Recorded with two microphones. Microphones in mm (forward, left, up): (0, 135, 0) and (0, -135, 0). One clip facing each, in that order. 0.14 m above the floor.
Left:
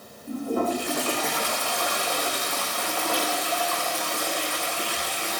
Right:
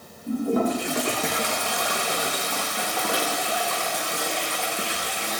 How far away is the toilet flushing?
About 5 m.